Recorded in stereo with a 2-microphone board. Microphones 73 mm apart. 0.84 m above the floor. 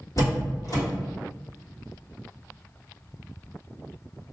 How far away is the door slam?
About 1.4 m.